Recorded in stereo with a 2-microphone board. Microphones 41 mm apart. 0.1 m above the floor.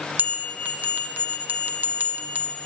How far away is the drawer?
I don't hear a drawer.